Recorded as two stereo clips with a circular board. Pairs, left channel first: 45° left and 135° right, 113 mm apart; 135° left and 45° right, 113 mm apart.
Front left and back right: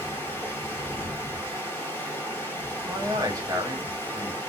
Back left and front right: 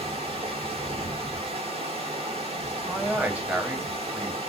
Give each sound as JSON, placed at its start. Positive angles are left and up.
{"t": 0.0, "sound": "running water", "azimuth_deg": -25, "distance_m": 1.6}
{"t": 2.9, "sound": "a man speaking", "azimuth_deg": -115, "distance_m": 1.1}